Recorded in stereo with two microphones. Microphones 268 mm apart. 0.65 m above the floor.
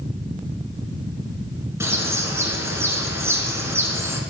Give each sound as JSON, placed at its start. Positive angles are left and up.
{"t": 1.8, "sound": "a bird", "side_deg": -10, "distance_m": 1.4}